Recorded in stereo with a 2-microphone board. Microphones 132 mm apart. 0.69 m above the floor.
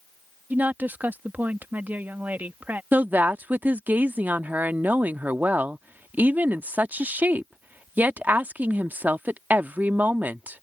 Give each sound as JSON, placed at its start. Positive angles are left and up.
{"t": 0.5, "sound": "a woman speaking", "side_deg": -15}
{"t": 2.9, "sound": "a woman speaking", "side_deg": -15}